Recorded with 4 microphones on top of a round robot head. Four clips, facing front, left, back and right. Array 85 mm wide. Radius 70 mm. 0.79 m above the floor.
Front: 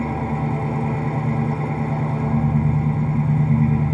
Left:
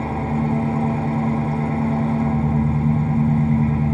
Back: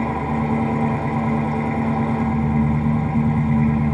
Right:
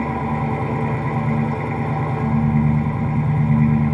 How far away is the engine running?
About 0.8 m.